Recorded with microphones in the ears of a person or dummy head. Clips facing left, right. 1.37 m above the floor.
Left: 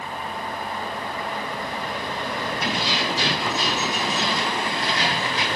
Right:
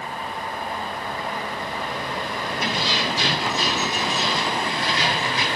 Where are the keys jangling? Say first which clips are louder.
Right 2 dB; 75° right (ahead or behind), 3.5 m.